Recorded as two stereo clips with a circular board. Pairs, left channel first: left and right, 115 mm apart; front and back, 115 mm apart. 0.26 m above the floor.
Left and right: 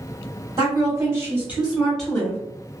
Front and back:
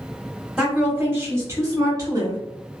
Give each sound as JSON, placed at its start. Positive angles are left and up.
{"t": 0.6, "sound": "a woman speaking", "azimuth_deg": -105, "distance_m": 1.5}